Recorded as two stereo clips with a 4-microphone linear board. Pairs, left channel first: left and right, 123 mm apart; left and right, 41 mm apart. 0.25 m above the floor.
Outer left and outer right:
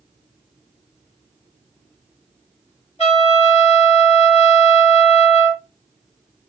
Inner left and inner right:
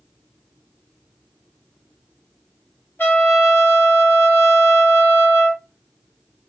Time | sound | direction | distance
3.0 | a trumpet | 55° left (ahead or behind) | 3 m